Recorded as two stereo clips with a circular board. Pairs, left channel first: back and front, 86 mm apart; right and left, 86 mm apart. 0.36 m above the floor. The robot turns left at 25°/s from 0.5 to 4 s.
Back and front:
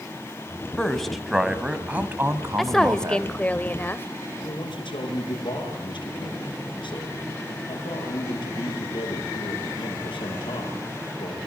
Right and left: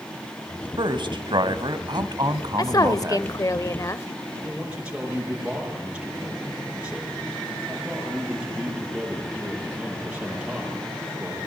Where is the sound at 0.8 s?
100° left, 1.8 m; by 3.5 s 30° left, 1.8 m.